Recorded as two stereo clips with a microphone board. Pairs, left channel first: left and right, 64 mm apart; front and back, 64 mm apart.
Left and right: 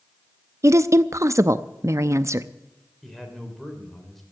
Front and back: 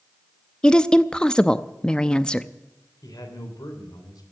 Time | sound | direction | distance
0.6 | a woman speaking | 75° right | 0.6 m
3.0 | a man speaking | straight ahead | 3.5 m